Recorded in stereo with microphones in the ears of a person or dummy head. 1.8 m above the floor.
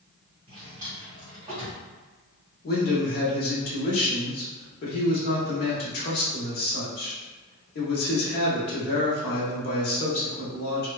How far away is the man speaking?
About 1.0 m.